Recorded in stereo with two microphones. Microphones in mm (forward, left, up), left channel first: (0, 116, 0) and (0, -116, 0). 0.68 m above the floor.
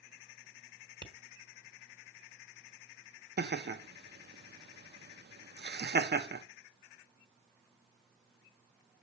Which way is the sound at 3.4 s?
45° right (ahead or behind).